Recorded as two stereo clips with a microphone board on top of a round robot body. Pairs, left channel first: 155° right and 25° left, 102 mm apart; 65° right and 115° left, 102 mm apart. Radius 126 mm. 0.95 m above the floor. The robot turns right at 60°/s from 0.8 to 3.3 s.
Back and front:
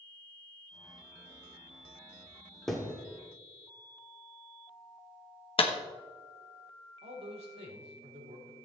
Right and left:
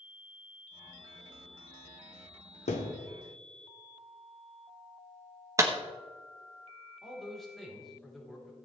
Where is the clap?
175° left, 1.2 m.